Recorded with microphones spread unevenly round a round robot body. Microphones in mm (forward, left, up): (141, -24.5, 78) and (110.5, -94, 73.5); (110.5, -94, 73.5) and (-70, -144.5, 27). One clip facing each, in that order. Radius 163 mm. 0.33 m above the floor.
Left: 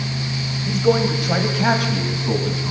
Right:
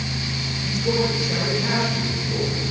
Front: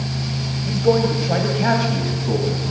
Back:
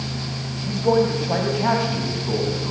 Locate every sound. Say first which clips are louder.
0.7 s a man speaking: left 5 dB, front 1 dB; 110° left, 2.5 m; by 2.7 s 85° left, 4.5 m